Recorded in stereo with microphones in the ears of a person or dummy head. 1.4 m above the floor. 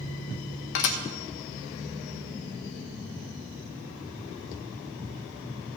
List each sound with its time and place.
0.8 s dishes clattering: 65° left (ahead or behind), 0.9 m